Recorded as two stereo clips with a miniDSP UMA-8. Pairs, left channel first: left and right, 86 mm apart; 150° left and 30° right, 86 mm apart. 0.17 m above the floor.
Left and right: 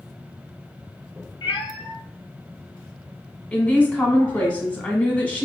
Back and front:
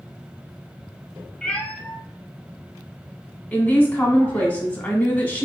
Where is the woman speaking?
125° left, 1.0 m.